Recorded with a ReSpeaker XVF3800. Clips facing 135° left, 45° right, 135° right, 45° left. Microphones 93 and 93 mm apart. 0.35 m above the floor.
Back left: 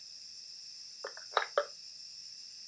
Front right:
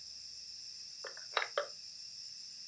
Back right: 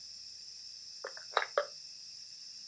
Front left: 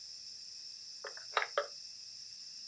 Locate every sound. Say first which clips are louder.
1.0 s crushing: back left 5 dB, back right 2 dB; 170° left, 1.0 m